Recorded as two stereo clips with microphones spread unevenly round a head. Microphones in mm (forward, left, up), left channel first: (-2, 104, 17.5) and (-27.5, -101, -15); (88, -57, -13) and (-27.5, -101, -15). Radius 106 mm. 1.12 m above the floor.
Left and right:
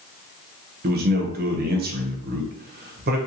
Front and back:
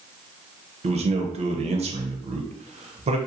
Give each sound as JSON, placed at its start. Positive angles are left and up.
{"t": 0.8, "sound": "a man speaking", "azimuth_deg": -130, "distance_m": 0.6}